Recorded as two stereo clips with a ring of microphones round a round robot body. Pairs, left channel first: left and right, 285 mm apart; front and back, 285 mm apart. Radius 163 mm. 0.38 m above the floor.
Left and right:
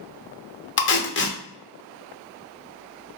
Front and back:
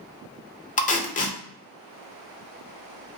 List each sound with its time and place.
0.8 s tape being pulled: 55° left, 0.7 m